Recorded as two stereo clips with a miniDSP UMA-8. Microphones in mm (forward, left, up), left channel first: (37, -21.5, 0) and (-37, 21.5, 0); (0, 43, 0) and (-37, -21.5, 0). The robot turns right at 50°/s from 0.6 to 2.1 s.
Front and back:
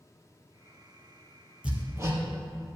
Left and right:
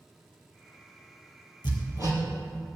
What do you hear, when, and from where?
1.6 s hammering: 75° left, 2.5 m; by 2.2 s 95° left, 2.5 m